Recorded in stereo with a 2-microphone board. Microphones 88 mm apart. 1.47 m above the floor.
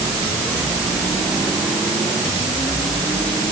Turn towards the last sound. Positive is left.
No sound to turn to.